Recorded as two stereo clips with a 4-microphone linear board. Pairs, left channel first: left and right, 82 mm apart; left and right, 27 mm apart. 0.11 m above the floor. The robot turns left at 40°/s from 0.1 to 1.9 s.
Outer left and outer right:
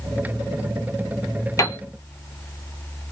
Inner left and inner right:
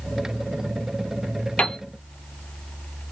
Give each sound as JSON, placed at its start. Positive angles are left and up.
{"t": 1.6, "sound": "a piano", "side_deg": 45, "distance_m": 0.7}